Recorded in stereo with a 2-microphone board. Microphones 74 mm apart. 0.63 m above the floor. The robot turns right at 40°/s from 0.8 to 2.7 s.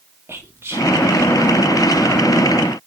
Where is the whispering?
35° right (ahead or behind), 1.3 m.